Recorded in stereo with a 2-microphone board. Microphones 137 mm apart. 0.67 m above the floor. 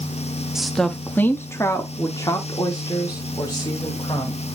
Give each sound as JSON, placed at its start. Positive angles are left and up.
{"t": 0.6, "sound": "a woman speaking", "side_deg": -5, "distance_m": 0.6}